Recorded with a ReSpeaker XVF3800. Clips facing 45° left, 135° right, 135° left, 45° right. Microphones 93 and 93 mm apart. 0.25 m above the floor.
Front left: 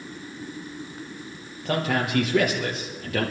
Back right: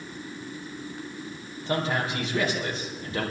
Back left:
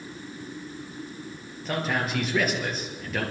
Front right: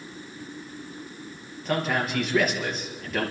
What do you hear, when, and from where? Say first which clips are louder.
1.6 s a man speaking: front left 2 dB, front right 2 dB; 45° left, 5 m